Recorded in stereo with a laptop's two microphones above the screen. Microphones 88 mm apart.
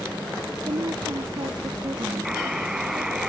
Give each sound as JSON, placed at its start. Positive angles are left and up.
{"t": 0.7, "sound": "a woman speaking", "side_deg": -80}
{"t": 2.2, "sound": "a buzzer", "side_deg": -5}